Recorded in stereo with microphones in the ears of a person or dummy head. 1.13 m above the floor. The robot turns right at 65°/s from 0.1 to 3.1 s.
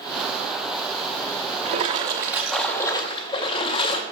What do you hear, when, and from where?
1.6 s a splash: 60° right, 0.7 m; by 4.0 s 35° left, 0.7 m